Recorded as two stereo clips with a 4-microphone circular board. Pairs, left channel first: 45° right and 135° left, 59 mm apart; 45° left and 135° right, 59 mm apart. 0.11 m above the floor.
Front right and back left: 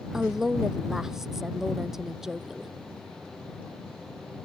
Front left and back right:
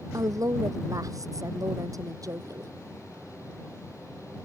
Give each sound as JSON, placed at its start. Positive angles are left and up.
{"t": 0.1, "sound": "a woman speaking", "azimuth_deg": -145}